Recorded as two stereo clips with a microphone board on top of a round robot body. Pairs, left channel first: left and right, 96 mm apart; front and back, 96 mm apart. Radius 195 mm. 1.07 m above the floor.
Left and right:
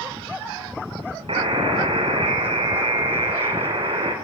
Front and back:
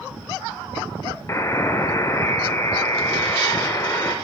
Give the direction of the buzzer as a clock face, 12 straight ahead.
2 o'clock.